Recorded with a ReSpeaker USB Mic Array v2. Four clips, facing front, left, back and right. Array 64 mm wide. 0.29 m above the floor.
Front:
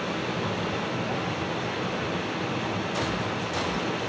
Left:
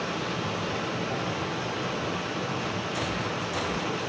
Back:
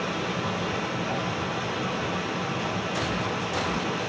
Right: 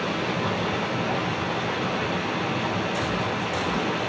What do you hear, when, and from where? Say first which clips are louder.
0.0 s running water: right 4 dB, even; 85° right, 10 m